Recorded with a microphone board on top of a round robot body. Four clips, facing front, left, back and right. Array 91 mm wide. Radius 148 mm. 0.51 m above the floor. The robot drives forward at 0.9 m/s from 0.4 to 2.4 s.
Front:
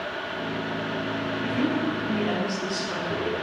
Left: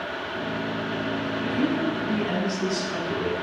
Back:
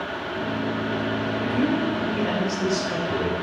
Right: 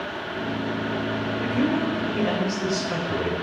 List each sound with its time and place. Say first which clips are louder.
1.4 s a woman speaking: right 1 dB, back 2 dB; 105° right, 2.5 m; by 3.3 s 125° right, 3 m